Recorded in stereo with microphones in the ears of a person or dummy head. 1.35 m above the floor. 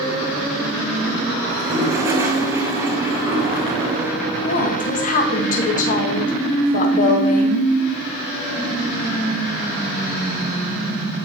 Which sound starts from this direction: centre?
A toilet flushing, at 1.5 s.